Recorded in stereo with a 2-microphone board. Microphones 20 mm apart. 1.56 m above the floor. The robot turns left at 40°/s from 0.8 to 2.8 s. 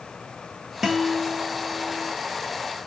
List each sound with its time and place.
0.8 s a guitar: 10° right (ahead or behind), 0.9 m; by 2.1 s 5° left (ahead or behind), 0.9 m